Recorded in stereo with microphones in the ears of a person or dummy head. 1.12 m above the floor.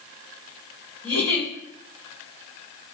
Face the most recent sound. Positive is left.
turn(degrees=-25)  # may be behind; listen again after turning